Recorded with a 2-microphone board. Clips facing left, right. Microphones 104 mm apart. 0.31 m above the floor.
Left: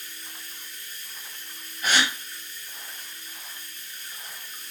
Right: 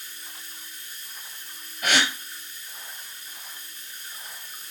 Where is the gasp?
85° right, 1.0 m.